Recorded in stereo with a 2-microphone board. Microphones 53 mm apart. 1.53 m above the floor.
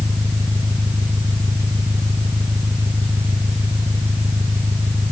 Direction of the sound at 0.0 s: 55° right (ahead or behind).